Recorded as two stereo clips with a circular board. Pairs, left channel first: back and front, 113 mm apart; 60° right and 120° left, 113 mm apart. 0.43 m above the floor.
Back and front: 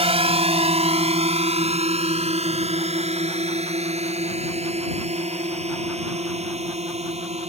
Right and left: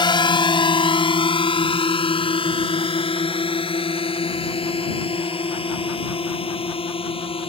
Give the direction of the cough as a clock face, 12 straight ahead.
No cough in this recording.